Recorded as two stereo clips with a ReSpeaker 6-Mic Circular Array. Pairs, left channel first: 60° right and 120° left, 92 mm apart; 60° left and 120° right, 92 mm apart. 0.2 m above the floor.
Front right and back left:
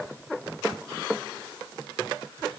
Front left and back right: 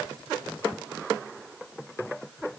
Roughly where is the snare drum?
I don't hear a snare drum.